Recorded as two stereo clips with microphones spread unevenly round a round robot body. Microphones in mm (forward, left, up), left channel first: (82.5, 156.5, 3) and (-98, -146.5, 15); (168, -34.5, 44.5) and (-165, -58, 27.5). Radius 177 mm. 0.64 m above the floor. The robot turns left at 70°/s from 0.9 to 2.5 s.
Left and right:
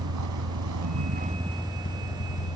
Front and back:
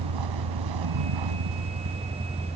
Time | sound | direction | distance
0.0 | a vehicle | 165° right | ?